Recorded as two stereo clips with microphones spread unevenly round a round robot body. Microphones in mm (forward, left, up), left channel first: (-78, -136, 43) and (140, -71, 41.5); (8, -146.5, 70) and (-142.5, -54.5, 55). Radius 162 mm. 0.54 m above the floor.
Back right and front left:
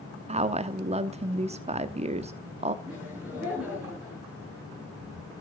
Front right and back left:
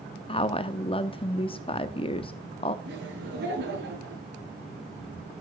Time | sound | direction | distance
0.3 | a woman speaking | 5° right | 1.0 m
2.9 | laughter | 100° left | 6.5 m